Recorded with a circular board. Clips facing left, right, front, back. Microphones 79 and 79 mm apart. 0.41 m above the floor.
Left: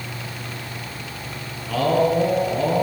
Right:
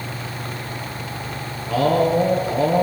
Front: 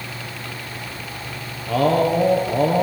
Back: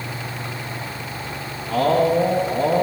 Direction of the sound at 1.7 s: 15° right.